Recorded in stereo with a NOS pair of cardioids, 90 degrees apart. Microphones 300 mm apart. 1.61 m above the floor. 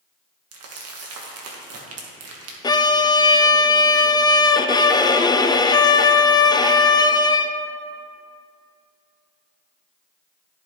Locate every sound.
0.5 s crumpling: 55° right, 1.7 m
2.6 s a violin: 15° left, 0.5 m